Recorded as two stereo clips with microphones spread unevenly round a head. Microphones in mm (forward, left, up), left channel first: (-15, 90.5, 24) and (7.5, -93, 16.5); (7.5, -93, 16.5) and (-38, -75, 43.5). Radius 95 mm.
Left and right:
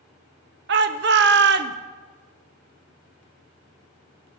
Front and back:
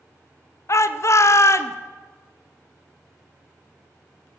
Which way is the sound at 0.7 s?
70° right.